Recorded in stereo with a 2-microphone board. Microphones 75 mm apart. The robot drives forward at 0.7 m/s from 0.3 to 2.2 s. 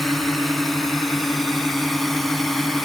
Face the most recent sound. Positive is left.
turn(degrees=5)  # may be behind; listen again after turning